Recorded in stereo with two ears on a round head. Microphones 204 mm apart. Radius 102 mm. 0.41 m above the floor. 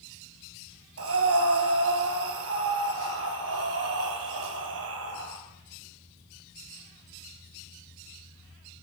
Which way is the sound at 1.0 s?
65° right (ahead or behind).